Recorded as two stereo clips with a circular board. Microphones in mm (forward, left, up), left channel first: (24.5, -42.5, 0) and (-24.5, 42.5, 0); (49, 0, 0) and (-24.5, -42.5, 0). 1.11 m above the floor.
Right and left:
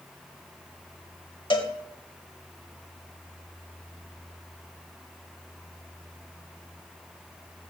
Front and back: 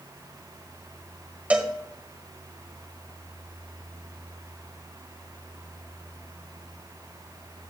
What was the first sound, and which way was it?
A cowbell, 80° right.